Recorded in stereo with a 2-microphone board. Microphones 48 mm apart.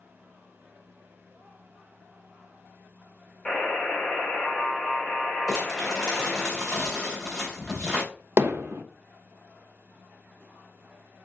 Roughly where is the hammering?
Right.